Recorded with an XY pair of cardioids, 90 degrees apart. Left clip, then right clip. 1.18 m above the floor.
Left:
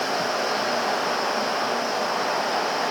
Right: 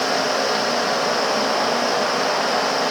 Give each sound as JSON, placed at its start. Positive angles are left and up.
{"t": 0.0, "sound": "a fan", "azimuth_deg": -60, "distance_m": 1.4}